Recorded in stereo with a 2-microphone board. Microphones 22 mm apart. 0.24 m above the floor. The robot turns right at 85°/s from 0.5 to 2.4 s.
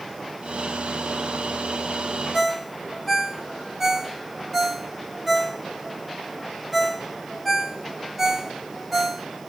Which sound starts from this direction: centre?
A ringtone, at 2.3 s.